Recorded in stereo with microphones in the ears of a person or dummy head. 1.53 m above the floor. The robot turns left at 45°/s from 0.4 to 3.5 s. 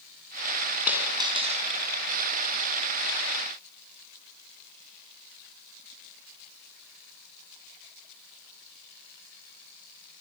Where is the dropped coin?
5° right, 6.5 m; by 1.6 s 40° right, 6.5 m.